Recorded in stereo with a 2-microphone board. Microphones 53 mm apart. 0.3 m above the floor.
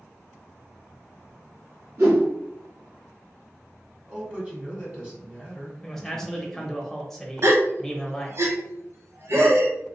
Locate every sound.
2.0 s a whoosh: 55° right (ahead or behind), 1.7 m
4.1 s a man speaking: 20° right (ahead or behind), 1.3 m
5.8 s a man speaking: 10° left (ahead or behind), 0.9 m
7.4 s a gasp: 55° right (ahead or behind), 0.6 m